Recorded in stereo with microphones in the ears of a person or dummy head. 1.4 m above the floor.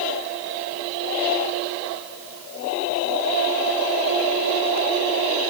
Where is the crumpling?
I don't hear crumpling.